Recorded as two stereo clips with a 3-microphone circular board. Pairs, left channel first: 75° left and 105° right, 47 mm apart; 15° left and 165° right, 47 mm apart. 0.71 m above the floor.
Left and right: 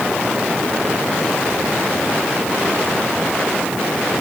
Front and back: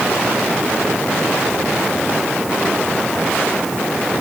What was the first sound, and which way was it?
Only background noise.